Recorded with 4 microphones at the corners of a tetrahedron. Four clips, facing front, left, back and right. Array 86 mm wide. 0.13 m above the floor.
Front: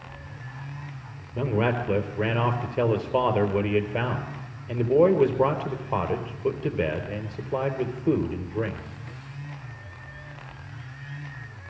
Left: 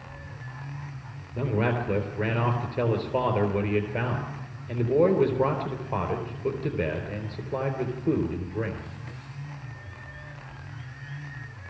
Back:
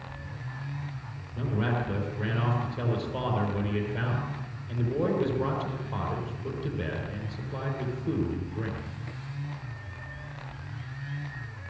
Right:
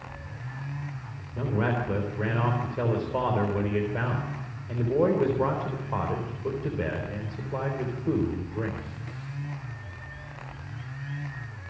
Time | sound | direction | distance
1.4 | a man speaking | 25° left | 4 m